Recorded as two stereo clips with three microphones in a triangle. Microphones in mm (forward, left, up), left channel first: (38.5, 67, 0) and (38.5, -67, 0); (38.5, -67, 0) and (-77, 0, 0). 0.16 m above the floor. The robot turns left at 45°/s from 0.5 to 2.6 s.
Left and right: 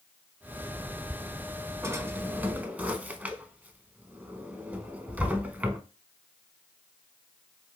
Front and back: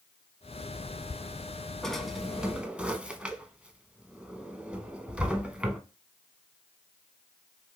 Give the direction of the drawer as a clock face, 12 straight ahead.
4 o'clock.